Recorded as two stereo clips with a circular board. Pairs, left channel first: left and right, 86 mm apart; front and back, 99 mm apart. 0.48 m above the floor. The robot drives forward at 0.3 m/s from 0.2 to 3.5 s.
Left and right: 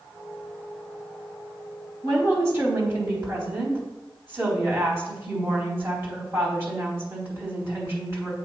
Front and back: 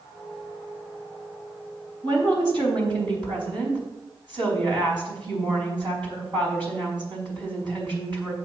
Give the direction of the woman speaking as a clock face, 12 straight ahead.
5 o'clock.